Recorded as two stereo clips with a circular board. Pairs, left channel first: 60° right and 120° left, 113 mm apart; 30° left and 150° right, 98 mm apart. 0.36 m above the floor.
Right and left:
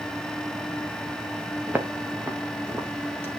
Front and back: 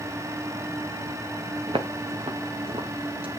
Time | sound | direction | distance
1.7 | footsteps | 165° right | 2.5 m